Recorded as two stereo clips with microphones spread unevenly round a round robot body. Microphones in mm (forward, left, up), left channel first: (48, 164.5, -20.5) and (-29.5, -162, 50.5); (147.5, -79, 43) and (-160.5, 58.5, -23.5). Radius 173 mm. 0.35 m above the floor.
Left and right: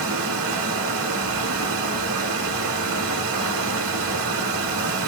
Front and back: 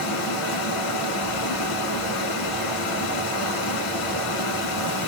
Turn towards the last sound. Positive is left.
turn(degrees=-50)